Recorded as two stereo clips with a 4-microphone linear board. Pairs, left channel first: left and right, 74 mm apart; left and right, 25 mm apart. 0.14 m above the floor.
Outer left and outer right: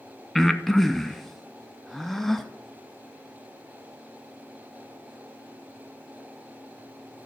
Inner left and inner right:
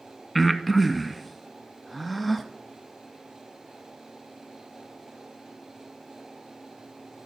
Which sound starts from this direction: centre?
Breathing, at 0.3 s.